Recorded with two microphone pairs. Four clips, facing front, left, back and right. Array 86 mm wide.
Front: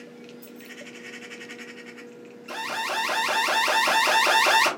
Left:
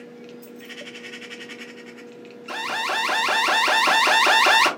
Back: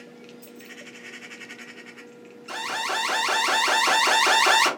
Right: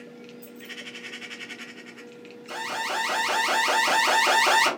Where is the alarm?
100° left, 2 m.